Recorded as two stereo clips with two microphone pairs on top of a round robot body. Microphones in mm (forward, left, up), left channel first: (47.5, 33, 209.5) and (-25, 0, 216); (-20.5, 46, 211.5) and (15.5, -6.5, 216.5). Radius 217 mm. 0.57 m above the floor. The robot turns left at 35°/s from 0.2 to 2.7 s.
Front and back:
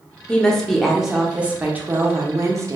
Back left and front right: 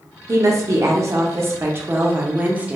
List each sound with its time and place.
0.3 s a woman speaking: 40° right, 0.7 m; by 2.8 s 125° right, 0.7 m